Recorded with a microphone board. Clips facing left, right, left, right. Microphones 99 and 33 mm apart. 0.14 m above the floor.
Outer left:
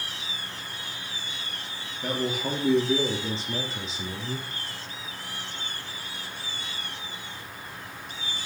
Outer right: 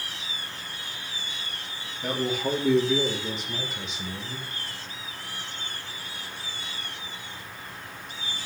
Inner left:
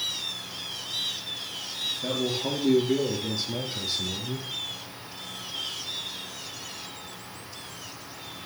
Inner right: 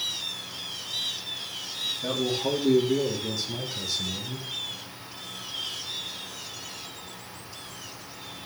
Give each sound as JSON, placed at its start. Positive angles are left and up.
{"t": 2.0, "sound": "a man speaking", "side_deg": 0, "distance_m": 3.0}